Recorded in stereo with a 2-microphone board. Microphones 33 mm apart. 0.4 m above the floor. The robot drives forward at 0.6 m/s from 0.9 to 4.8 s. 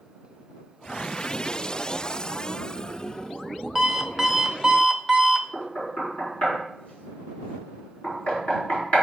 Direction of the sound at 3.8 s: 15° right (ahead or behind).